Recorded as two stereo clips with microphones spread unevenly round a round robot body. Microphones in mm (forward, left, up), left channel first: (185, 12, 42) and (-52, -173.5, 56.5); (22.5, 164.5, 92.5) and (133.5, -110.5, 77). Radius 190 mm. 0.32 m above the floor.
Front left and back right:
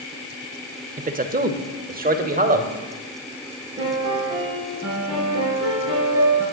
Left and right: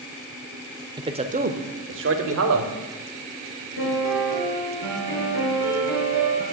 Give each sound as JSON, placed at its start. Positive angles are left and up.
{"t": 1.0, "sound": "a man speaking", "azimuth_deg": -115, "distance_m": 1.0}
{"t": 3.8, "sound": "a piano", "azimuth_deg": 140, "distance_m": 6.5}